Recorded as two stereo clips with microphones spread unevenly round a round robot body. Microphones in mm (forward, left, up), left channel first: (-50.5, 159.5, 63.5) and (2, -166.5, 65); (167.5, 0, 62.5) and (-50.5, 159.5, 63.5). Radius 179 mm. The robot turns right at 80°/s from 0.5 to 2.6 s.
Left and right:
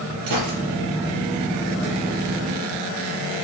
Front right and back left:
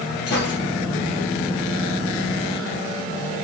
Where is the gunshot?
95° right, 4 m; by 0.6 s 90° right, 4 m.